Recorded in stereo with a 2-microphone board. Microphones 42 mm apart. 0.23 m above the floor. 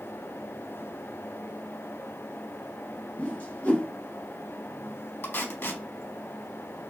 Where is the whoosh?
40° left (ahead or behind), 1.5 m.